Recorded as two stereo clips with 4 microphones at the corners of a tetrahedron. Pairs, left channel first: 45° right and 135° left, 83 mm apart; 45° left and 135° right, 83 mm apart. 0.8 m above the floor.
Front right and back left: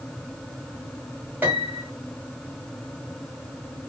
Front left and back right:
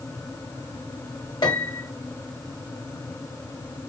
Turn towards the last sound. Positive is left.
turn(degrees=70)